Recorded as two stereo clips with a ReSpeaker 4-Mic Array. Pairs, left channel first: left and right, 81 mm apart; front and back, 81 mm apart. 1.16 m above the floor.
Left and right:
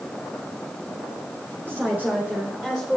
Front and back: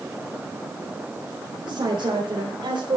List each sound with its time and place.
1.6 s a woman speaking: 155° right, 3.5 m; by 3.0 s 170° right, 4 m